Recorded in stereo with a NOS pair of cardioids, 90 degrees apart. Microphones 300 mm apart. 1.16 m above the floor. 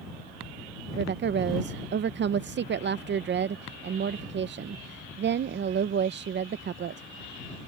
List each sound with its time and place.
1.0 s a woman speaking: 35° right